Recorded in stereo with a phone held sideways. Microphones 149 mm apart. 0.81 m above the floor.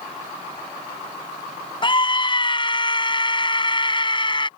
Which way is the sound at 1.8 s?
35° left (ahead or behind).